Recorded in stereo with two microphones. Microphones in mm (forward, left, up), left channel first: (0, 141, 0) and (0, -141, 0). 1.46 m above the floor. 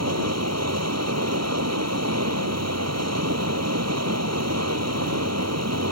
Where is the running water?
65° right (ahead or behind).